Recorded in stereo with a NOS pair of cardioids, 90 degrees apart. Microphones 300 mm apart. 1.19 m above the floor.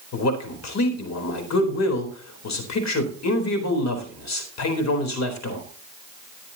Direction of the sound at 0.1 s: 60° left.